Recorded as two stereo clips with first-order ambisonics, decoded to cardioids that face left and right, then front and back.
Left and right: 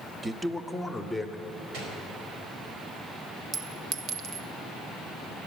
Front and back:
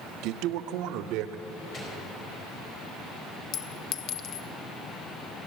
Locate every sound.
0.2 s a man speaking: 165° right, 0.8 m; by 1.4 s straight behind, 1.7 m
1.7 s a gunshot: 65° right, 4 m
3.5 s a clink: 40° right, 1.0 m